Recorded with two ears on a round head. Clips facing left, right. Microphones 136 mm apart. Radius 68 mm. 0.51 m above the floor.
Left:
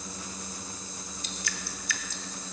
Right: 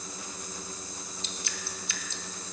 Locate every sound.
1.2 s dripping: 20° right (ahead or behind), 0.7 m